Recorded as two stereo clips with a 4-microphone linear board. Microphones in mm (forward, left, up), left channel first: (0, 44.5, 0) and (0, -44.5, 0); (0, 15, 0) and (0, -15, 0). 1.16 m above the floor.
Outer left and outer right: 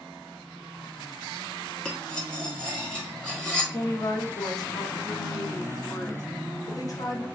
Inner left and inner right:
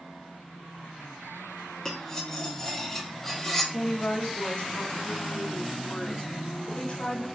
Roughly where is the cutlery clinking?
Centre.